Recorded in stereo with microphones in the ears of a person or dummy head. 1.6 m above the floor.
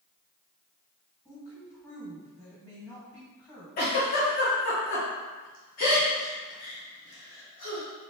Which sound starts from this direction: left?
A giggle, at 3.8 s.